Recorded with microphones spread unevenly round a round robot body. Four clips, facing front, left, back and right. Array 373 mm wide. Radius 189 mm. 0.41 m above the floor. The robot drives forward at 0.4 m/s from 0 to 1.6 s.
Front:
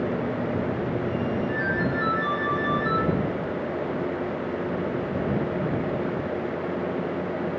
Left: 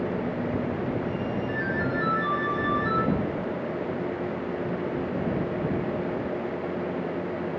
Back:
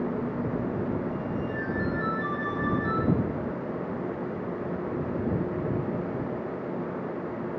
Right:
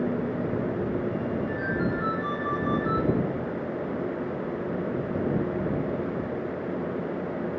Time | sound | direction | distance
1.5 | a ringtone | 145° right | 4 m